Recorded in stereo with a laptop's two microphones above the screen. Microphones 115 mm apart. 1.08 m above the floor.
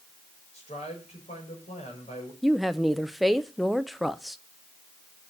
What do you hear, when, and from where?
0.5 s a man speaking: 75° left (ahead or behind), 5.5 m
2.4 s a woman speaking: centre (ahead or behind), 0.5 m